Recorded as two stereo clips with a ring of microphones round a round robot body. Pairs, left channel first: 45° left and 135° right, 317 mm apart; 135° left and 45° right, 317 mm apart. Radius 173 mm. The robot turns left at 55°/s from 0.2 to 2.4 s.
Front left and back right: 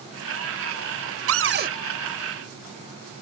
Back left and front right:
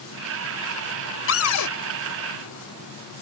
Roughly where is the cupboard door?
Behind.